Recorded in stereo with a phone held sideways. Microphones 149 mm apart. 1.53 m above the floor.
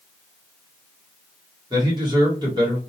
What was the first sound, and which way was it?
A man speaking, 30° right (ahead or behind).